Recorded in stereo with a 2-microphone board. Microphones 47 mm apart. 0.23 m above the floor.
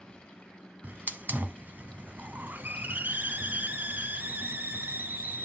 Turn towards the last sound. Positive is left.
turn(degrees=-35)  # may be behind; listen again after turning